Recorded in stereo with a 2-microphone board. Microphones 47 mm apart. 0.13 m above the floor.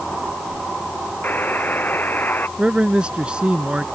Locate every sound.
1.2 s a buzzer: 40° left (ahead or behind)
2.6 s a man speaking: 20° right (ahead or behind)